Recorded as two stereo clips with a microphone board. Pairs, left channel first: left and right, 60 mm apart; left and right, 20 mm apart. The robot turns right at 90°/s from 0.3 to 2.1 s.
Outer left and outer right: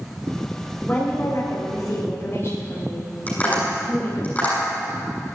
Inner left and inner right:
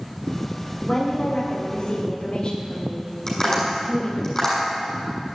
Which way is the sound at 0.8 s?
25° left.